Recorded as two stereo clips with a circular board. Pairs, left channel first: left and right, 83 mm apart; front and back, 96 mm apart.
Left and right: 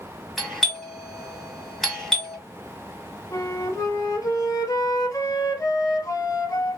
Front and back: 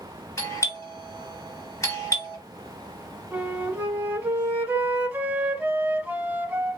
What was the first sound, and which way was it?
A doorbell, straight ahead.